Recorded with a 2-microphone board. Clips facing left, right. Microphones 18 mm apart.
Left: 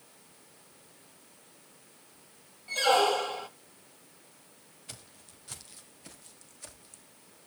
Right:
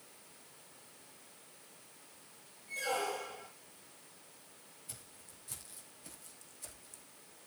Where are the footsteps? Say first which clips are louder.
Left 6 dB; 45° left (ahead or behind), 2.5 m; by 7.0 s 25° left (ahead or behind), 4 m.